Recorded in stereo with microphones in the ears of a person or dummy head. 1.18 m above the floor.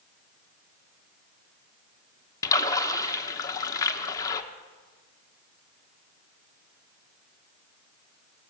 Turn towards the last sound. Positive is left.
turn(degrees=20)  # may be behind; listen again after turning